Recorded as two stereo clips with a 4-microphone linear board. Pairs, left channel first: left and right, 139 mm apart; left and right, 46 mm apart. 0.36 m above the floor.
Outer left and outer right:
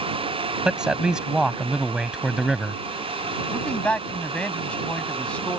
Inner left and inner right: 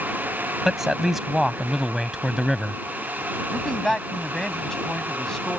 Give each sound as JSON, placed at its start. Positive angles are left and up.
{"t": 0.7, "sound": "a man speaking", "side_deg": -5}
{"t": 3.5, "sound": "a man speaking", "side_deg": 10}